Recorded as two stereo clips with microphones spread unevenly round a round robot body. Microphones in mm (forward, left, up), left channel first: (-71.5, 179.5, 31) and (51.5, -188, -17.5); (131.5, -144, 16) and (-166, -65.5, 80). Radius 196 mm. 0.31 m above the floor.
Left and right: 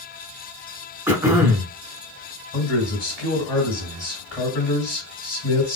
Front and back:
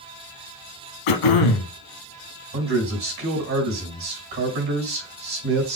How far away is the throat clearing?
About 0.5 m.